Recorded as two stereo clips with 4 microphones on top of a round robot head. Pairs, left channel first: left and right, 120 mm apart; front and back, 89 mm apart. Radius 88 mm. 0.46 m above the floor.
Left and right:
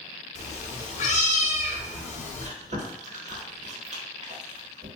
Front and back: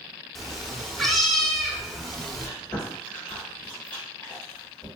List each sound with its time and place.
0.3 s a cat meowing: 90° left, 0.7 m
2.4 s chewing: 80° right, 1.1 m